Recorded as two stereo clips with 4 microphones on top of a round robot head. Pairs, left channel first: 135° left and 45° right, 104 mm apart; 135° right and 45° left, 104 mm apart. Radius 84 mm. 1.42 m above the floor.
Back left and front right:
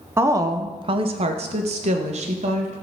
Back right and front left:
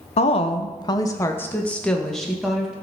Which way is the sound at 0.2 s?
115° right.